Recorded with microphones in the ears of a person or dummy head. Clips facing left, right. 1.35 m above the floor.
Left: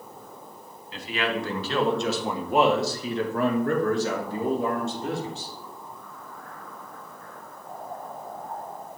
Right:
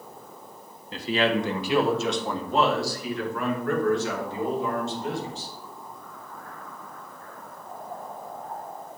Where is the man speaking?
40° right (ahead or behind), 1.3 m; by 5.5 s 50° left (ahead or behind), 3.5 m.